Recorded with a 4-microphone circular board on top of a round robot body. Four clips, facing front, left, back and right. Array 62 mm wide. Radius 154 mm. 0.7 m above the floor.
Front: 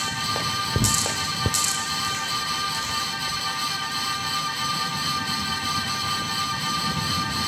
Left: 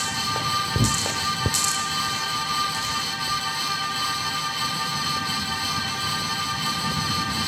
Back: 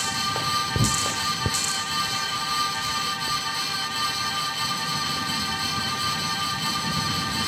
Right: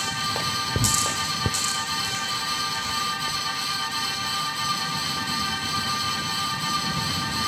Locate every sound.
0.8 s tearing paper: 140° left, 3.5 m